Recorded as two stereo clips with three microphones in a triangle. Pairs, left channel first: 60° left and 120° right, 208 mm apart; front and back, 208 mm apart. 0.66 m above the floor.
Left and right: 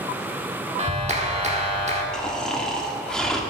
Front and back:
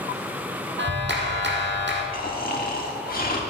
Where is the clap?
170° right, 1.4 m.